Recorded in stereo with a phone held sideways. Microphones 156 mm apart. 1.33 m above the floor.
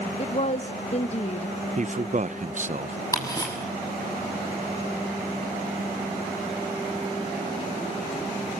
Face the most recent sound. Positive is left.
turn(degrees=25)  # may be behind; listen again after turning